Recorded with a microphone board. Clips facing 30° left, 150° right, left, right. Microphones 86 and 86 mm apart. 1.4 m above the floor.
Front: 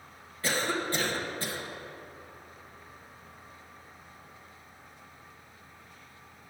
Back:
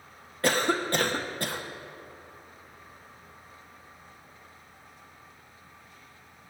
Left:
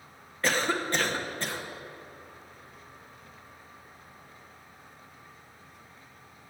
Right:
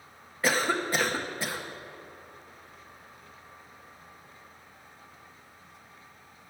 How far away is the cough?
About 1.0 m.